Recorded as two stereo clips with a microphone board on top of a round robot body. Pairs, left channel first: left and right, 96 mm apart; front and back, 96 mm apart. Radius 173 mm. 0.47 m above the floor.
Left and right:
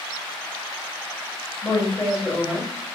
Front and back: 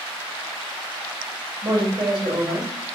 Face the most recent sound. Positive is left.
turn(degrees=150)